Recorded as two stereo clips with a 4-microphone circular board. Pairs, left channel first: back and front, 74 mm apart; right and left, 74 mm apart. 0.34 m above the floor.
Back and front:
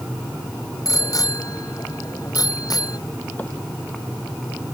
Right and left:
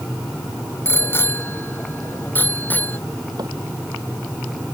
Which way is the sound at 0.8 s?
145° right.